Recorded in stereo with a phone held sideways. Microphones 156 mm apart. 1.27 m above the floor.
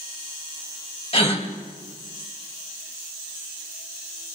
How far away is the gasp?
About 2.0 m.